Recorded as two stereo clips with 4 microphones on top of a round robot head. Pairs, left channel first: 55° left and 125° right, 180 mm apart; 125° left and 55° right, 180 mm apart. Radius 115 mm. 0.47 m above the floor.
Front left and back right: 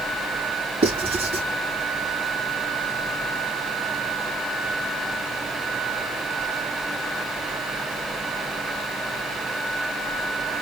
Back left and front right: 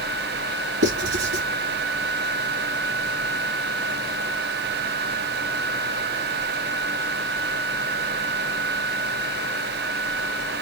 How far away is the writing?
About 3 m.